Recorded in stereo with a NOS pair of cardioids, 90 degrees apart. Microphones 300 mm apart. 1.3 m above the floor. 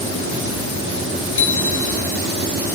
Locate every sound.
1.4 s a bicycle bell: 40° left, 2.5 m